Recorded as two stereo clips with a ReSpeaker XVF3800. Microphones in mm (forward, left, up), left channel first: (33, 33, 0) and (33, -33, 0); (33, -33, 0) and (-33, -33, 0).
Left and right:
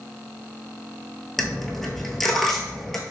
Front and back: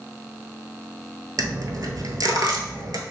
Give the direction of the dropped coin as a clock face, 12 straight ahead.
6 o'clock.